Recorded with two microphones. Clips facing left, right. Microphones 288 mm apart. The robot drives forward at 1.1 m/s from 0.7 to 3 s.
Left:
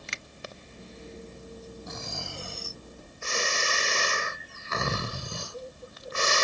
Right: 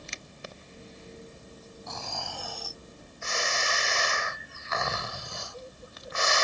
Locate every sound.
0.1 s a finger snap: 80° left
1.9 s snoring: 20° left (ahead or behind); by 6.4 s 35° left (ahead or behind)